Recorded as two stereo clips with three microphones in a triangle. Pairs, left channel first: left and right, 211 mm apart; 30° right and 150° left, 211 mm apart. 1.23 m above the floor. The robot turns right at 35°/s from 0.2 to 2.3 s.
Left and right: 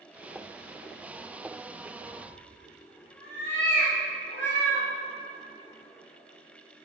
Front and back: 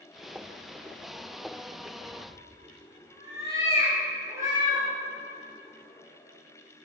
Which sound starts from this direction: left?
A cat meowing, at 2.0 s.